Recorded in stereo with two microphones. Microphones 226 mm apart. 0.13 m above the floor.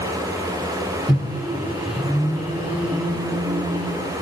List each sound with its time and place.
1.1 s a microwave: 5° right (ahead or behind), 0.9 m